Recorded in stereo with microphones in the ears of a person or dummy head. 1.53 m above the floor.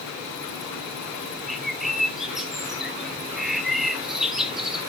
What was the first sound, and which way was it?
A bird, 5° left (ahead or behind).